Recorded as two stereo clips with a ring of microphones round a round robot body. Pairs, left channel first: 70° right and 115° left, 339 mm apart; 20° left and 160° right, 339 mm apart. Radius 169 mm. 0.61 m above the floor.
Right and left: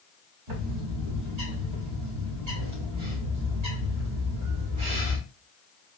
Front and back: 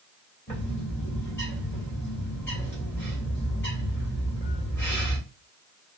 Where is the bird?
105° left, 1.9 m.